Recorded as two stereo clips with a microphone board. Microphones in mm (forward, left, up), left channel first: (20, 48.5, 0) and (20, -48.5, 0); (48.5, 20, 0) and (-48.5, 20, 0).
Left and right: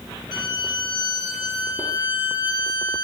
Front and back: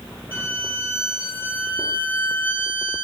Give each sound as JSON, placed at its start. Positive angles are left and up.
{"t": 0.3, "sound": "a violin", "azimuth_deg": 65, "distance_m": 2.5}